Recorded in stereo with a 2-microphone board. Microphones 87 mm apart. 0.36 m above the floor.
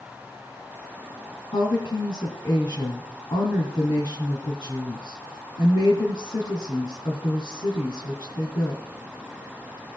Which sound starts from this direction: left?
A woman speaking, at 1.5 s.